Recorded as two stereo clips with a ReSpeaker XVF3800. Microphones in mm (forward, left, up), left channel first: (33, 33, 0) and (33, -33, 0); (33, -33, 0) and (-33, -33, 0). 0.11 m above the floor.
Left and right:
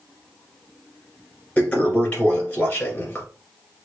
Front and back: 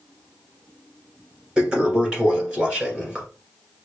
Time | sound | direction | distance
1.6 | a toilet flushing | 125° left | 1.7 m